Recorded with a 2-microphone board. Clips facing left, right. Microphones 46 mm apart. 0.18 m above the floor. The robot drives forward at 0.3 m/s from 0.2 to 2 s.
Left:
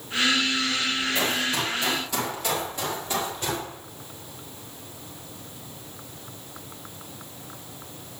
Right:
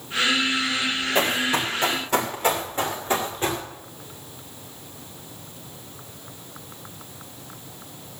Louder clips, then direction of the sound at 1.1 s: Right 3 dB; 45° right (ahead or behind).